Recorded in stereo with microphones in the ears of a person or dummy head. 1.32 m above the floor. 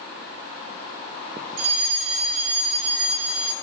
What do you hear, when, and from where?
1.6 s a fire alarm: 80° right, 6 m